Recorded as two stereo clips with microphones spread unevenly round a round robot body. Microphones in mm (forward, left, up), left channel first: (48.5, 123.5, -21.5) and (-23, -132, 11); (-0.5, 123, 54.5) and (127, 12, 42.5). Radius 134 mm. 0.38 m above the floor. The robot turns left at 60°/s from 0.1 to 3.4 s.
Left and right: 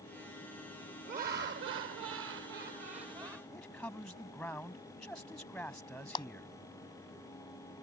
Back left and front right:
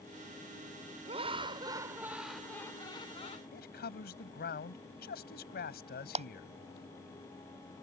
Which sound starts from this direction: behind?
A man speaking, at 3.5 s.